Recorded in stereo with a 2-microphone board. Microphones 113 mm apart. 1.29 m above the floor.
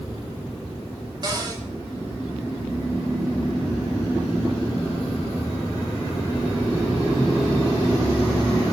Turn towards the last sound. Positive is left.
turn(degrees=-40)  # may be behind; listen again after turning